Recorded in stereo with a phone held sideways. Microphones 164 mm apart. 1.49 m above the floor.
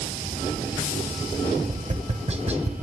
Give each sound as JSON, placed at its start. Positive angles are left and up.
{"t": 1.7, "sound": "tapping", "side_deg": -40, "distance_m": 1.4}